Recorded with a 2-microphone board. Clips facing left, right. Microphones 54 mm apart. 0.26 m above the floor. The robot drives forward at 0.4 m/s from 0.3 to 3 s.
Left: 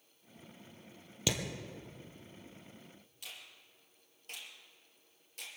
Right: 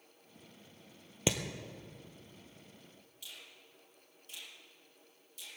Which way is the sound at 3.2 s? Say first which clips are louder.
Left 1 dB; 55° left (ahead or behind).